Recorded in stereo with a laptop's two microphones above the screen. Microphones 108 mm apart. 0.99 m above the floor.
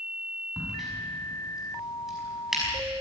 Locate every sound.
0.6 s a crack: centre (ahead or behind), 5.5 m